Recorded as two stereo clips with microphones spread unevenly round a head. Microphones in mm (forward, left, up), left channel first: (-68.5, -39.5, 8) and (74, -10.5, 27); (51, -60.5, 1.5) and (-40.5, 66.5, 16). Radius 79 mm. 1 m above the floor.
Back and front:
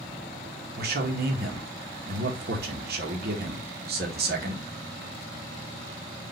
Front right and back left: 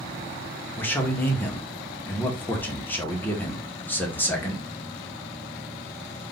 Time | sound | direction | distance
0.8 | a man speaking | 20° left | 1.7 m